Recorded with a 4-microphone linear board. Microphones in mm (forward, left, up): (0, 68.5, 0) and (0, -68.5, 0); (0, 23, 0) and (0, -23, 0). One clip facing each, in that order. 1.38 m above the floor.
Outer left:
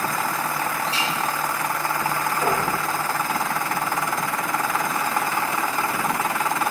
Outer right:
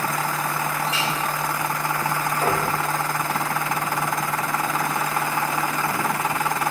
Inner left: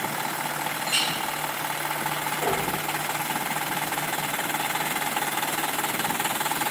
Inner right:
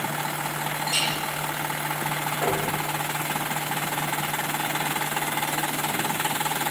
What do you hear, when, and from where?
0.9 s a clink: 30° left (ahead or behind), 3 m
2.4 s knocking: 30° right (ahead or behind), 2.5 m